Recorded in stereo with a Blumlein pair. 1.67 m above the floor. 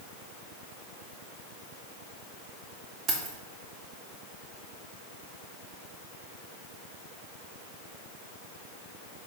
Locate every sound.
3.1 s keys jangling: 30° right, 1.9 m